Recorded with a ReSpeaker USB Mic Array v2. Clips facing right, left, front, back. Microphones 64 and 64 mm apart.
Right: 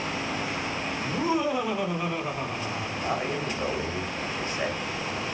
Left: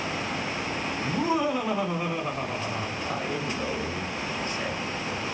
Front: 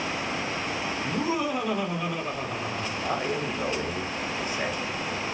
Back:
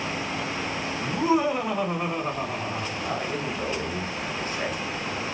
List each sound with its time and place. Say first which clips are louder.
1.0 s laughter: left 1 dB, back 6 dB; 115° left, 3 m; by 2.9 s 140° left, 2.5 m
3.0 s a man speaking: right 1 dB, front 3 dB; 60° right, 1.7 m